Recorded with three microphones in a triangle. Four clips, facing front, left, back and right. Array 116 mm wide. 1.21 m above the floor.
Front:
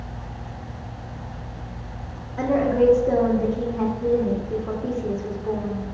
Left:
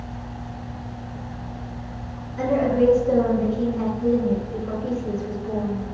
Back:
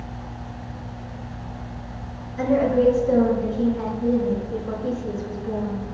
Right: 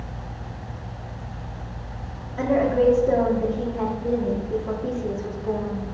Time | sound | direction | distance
2.4 | a woman speaking | 30° right | 3.5 m